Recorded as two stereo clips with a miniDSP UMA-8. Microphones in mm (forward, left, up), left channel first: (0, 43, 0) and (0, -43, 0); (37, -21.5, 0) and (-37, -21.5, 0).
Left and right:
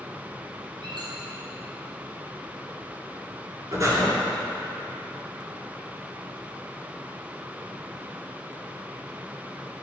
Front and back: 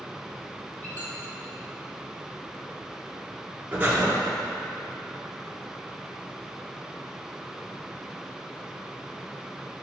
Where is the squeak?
65° right, 2.5 m.